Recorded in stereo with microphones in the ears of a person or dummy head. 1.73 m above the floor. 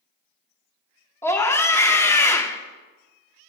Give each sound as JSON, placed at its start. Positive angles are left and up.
{"t": 1.2, "sound": "a scream", "side_deg": 20, "distance_m": 0.6}